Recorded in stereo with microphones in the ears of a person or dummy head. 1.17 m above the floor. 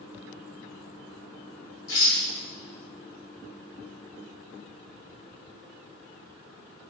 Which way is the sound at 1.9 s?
65° left (ahead or behind).